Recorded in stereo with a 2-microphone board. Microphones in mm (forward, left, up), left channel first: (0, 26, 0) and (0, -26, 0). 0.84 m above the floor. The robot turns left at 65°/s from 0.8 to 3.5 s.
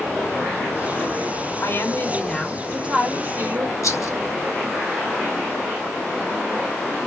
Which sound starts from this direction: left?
A rattle, at 3.8 s.